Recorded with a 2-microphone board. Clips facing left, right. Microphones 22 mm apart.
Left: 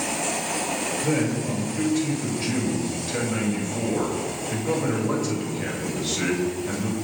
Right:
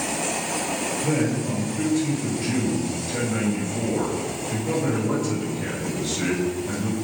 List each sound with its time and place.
1.0 s a man speaking: 25° left (ahead or behind), 6.5 m